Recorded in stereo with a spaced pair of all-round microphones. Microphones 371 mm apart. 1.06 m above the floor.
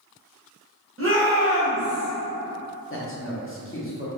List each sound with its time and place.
1.0 s a shout: 35° right (ahead or behind), 1.0 m; by 2.1 s 10° left (ahead or behind), 0.6 m
2.9 s a man speaking: 35° left (ahead or behind), 0.7 m